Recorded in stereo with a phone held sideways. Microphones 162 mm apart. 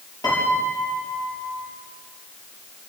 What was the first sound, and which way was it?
A piano, 25° left (ahead or behind).